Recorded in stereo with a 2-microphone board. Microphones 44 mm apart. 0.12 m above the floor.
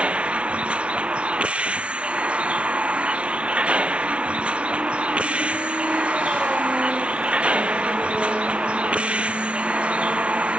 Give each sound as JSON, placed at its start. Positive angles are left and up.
{"t": 0.0, "sound": "a vehicle", "side_deg": -25}